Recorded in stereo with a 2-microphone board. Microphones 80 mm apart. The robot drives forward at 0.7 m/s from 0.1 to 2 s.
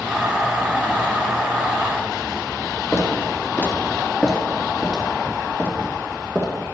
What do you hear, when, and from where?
2.9 s footsteps: 35° left (ahead or behind), 2 m; by 6.7 s 40° right (ahead or behind), 3 m